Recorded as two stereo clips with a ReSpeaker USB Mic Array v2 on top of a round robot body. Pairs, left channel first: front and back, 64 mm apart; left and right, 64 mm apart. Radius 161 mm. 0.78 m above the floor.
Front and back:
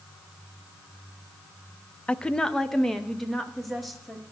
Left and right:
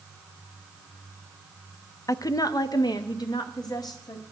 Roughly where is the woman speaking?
Left.